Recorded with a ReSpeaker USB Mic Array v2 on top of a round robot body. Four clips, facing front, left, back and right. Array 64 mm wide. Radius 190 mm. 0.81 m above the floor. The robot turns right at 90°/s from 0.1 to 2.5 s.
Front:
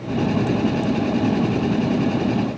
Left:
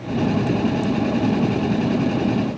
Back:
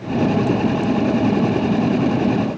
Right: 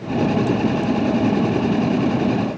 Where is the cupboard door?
No cupboard door in this recording.